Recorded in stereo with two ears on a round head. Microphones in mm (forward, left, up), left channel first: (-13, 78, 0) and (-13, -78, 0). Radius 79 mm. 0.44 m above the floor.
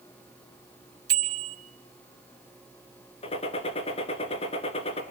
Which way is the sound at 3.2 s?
35° left (ahead or behind).